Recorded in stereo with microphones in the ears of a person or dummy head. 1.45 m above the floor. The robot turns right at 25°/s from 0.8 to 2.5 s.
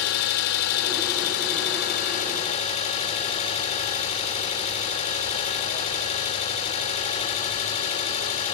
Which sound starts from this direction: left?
An engine running, at 0.0 s.